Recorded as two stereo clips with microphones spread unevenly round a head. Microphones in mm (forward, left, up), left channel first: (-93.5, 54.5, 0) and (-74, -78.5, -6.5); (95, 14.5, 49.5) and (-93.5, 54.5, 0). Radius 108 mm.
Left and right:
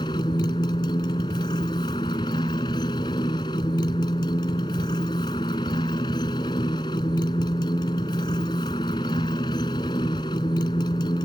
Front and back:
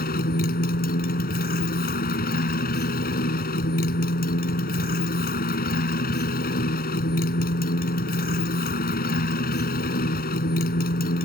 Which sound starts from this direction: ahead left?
A motorcycle, at 0.0 s.